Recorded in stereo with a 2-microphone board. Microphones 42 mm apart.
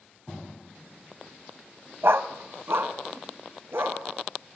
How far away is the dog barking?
About 1.1 m.